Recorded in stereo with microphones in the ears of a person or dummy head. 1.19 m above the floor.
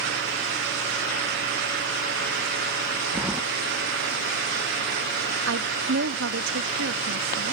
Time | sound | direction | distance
3.1 | keys jangling | 10° right (ahead or behind) | ?
5.5 | a woman speaking | 65° right (ahead or behind) | ?